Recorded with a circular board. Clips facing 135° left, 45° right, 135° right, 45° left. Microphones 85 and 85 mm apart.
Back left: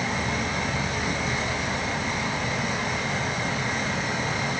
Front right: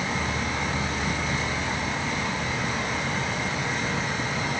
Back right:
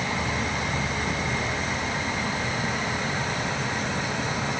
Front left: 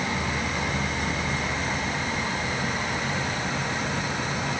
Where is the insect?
155° left, 4.5 m.